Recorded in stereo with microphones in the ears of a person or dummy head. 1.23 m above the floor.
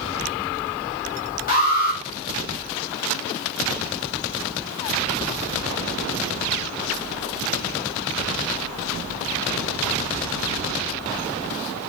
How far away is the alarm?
About 1.5 m.